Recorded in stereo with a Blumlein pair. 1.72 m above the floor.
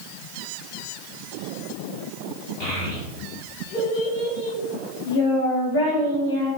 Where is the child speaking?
30° left, 2.0 m; by 6.5 s 55° left, 4.5 m.